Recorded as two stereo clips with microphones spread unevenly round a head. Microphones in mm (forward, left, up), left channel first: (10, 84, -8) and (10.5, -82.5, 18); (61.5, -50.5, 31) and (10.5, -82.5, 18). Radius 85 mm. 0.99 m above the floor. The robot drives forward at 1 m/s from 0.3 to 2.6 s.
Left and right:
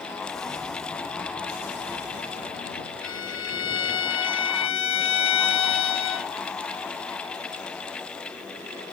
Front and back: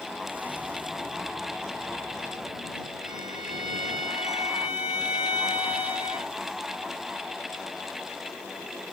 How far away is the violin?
About 0.8 m.